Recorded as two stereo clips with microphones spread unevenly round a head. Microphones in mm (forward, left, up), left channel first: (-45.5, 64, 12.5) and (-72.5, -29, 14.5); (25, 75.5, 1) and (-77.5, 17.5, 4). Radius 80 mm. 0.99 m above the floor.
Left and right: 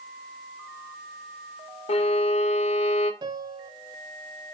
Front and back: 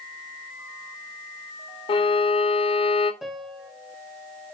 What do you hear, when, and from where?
1.9 s a violin: 70° left, 0.9 m
3.2 s a piano: 60° right, 0.7 m